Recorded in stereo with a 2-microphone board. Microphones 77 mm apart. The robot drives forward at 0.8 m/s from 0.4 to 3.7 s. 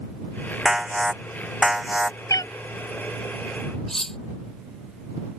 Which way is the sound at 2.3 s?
50° left (ahead or behind).